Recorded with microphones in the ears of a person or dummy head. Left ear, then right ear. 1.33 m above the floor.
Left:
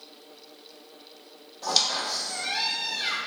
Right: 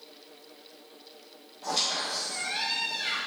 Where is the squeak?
70° left (ahead or behind), 1.8 m.